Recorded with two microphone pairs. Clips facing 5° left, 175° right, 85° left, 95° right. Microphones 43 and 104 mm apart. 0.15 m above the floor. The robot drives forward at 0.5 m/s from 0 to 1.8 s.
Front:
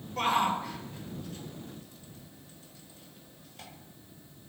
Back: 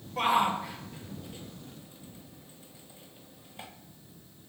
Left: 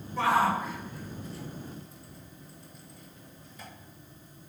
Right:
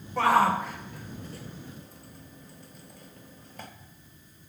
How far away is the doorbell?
I don't hear a doorbell.